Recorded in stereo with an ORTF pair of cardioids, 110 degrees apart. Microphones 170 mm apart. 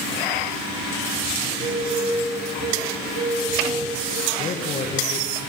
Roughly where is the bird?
Ahead right.